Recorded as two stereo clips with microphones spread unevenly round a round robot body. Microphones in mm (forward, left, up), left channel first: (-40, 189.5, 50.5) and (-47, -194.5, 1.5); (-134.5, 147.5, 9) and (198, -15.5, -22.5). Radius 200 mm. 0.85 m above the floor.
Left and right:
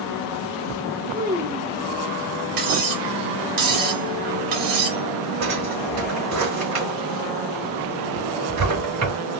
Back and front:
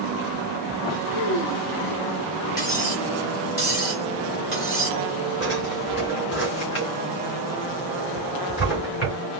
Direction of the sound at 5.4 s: 140° right.